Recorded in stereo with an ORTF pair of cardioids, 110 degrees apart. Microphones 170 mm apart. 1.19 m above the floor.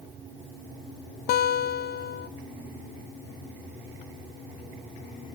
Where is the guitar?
65° left, 0.7 m.